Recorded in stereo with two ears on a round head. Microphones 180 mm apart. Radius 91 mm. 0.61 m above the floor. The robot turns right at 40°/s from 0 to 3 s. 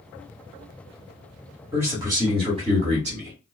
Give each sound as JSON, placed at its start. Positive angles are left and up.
{"t": 1.7, "sound": "a man speaking", "azimuth_deg": -165, "distance_m": 1.4}